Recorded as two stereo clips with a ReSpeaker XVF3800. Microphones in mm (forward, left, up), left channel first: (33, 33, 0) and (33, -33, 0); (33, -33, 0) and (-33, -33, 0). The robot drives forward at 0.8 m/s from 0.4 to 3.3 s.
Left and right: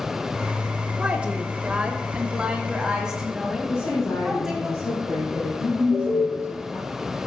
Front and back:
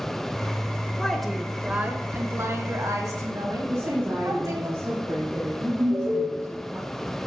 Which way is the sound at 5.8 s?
150° right.